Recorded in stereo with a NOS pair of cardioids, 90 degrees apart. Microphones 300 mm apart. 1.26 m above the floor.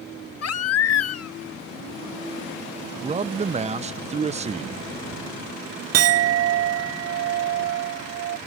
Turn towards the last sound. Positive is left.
turn(degrees=-55)